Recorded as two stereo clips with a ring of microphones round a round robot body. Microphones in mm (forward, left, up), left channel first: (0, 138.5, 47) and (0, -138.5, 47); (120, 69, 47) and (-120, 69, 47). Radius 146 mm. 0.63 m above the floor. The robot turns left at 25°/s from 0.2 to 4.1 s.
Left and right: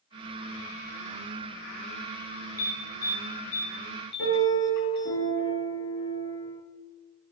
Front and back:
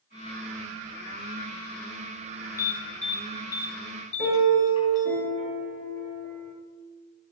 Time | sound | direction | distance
2.6 | an alarm | 100° left | 8 m
4.2 | a piano | 40° left | 8.5 m